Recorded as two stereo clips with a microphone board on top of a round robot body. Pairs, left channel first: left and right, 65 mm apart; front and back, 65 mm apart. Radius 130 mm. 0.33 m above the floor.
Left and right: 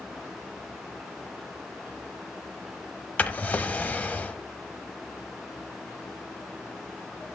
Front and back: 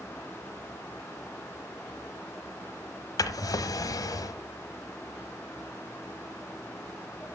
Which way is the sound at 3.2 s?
25° left.